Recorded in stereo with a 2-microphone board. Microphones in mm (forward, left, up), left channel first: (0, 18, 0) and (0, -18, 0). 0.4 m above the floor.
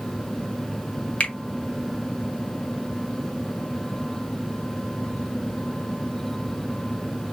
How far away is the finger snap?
About 1.6 m.